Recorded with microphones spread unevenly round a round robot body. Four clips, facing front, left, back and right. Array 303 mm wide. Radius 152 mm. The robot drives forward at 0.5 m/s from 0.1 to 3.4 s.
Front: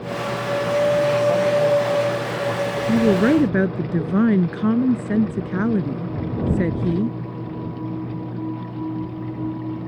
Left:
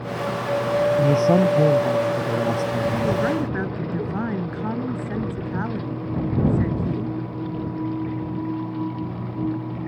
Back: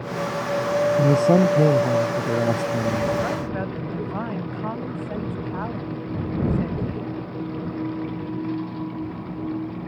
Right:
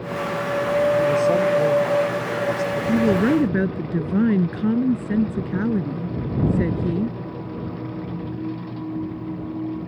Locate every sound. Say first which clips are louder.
1.0 s a man speaking: left 1 dB, back 1 dB; 150° left; by 3.3 s 155° left
2.9 s a woman speaking: right 7 dB, front 12 dB; 30° right; by 7.2 s 35° right